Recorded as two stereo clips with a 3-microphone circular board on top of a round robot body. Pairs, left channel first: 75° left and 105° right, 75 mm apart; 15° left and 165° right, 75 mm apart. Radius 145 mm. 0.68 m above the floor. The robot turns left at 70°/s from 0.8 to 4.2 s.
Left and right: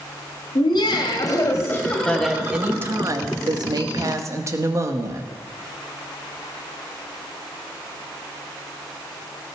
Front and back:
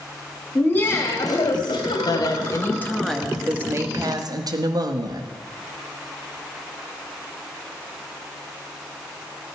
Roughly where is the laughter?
Left.